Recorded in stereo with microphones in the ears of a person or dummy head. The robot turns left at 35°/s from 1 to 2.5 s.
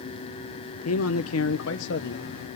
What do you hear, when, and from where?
0.8 s a man speaking: 105° left, 0.6 m; by 2.4 s 55° left, 0.6 m